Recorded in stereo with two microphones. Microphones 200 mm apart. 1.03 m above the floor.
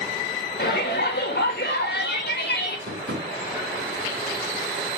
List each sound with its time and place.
0.6 s a shout: 60° left (ahead or behind), 1.5 m
2.9 s tapping: 75° right (ahead or behind), 1.7 m